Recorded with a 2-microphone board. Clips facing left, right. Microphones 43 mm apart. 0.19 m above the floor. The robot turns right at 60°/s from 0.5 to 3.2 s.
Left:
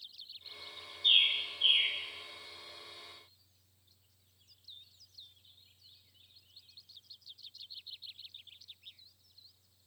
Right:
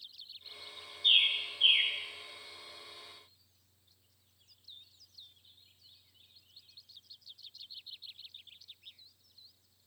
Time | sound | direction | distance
1.0 | a bird | 10° right (ahead or behind) | 3 m